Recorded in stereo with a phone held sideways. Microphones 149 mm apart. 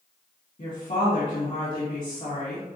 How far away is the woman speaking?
About 1.8 m.